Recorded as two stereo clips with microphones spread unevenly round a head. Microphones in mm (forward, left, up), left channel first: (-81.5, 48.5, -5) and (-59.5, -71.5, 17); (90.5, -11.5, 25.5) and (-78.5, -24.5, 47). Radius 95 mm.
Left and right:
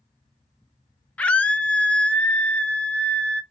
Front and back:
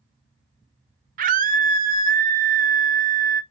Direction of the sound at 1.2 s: 165° left.